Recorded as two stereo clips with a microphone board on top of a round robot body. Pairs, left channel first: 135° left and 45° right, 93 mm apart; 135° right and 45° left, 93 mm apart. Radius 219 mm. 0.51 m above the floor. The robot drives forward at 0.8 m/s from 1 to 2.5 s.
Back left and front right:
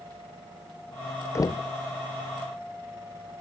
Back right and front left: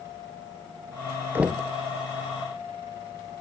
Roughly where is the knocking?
Left.